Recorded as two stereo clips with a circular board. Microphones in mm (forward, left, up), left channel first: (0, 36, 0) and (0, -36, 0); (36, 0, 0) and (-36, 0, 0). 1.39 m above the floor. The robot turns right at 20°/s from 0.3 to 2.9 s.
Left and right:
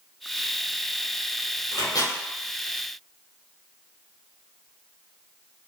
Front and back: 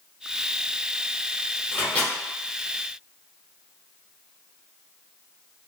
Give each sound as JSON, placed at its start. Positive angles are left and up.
{"t": 1.7, "sound": "a microwave", "azimuth_deg": 65, "distance_m": 0.9}